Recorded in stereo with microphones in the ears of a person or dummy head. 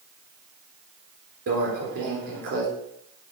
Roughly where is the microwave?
Right.